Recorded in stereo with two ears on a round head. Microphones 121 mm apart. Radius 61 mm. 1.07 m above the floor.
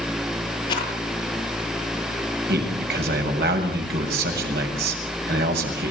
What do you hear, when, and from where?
0.7 s a rattle: 35° left (ahead or behind), 10 m
2.5 s a man speaking: 85° right, 7.5 m